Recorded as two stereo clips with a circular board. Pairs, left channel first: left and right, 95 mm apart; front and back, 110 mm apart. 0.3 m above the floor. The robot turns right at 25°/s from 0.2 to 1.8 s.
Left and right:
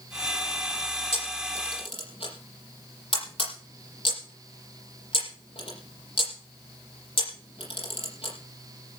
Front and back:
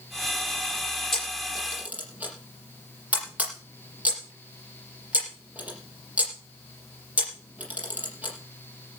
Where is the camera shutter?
85° left, 6.5 m; by 8.3 s 105° left, 6.5 m.